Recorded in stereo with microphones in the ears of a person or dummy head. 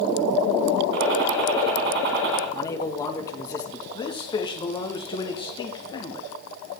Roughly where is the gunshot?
Right.